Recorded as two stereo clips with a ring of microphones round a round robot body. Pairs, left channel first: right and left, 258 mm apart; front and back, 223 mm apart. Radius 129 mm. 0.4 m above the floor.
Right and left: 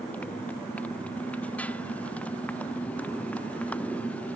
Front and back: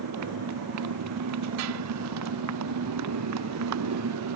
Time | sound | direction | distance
0.0 | a motorcycle | 175° right | ?